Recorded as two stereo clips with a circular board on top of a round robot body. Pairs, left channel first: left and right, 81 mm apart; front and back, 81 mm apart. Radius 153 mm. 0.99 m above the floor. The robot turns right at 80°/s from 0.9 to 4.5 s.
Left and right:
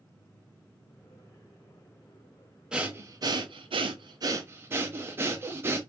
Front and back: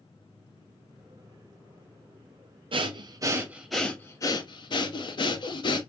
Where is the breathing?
170° right, 0.8 m; by 5.8 s 25° right, 0.8 m.